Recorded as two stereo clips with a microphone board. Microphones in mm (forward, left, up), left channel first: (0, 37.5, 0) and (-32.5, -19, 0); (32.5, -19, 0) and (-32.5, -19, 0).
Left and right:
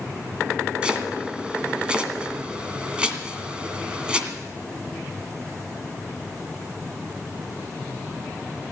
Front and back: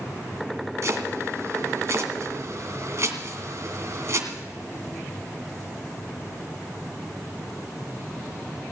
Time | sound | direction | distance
0.8 | chopping | 170° left | 1.9 m